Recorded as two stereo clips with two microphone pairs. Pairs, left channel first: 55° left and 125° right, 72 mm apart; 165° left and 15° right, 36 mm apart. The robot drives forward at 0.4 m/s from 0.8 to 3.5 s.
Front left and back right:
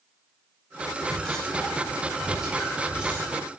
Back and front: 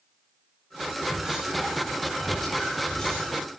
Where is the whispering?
5° right, 1.0 m; by 3.3 s 175° right, 1.0 m.